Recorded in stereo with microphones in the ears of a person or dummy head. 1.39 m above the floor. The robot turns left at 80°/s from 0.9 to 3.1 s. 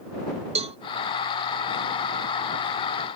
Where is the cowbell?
30° right (ahead or behind).